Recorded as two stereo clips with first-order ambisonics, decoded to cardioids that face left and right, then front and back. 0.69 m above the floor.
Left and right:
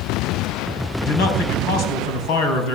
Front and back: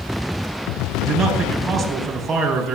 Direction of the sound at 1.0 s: 110° left.